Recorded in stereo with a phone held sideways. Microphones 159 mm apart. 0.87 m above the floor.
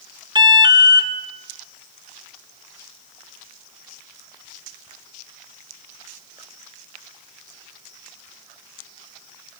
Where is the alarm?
30° right (ahead or behind), 1.7 m.